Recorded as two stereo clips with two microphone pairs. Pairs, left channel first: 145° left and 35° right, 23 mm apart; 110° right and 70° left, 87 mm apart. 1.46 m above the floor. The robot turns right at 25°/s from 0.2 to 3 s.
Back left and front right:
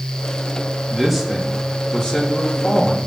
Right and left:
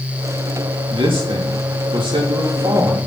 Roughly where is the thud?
I don't hear a thud.